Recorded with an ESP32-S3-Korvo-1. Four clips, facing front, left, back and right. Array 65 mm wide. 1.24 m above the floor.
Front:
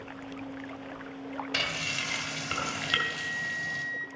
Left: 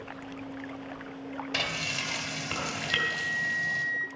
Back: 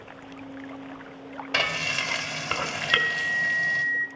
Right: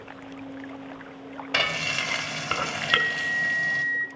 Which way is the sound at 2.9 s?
135° right.